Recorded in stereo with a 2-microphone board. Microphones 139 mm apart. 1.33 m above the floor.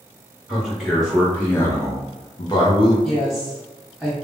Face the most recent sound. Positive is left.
turn(degrees=0)  # may be behind; listen again after turning